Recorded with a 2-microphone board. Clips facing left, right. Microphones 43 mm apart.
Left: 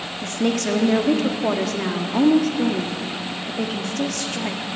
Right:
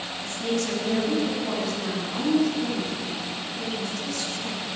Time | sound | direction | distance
0.2 | a woman speaking | 65° left (ahead or behind) | 1.5 m